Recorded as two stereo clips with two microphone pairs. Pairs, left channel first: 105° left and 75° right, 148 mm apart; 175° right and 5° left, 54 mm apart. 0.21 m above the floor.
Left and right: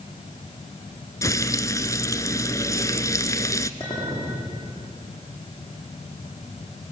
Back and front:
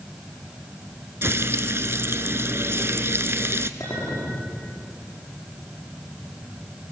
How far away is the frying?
About 0.9 m.